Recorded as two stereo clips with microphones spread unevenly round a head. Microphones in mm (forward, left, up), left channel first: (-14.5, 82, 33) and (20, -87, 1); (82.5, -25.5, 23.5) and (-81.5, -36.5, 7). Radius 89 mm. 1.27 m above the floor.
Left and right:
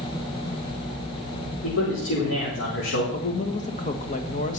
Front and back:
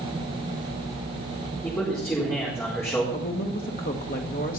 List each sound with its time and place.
1.6 s a man speaking: 80° left, 4.5 m
3.1 s a woman speaking: 50° left, 1.6 m